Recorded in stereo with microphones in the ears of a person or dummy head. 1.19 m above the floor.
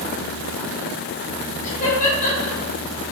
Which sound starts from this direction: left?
Laughter, at 1.6 s.